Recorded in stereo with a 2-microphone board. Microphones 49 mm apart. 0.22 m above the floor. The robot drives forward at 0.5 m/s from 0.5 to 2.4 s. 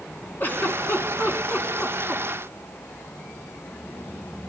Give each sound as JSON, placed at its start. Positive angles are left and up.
{"t": 0.4, "sound": "a giggle", "side_deg": 40, "distance_m": 1.2}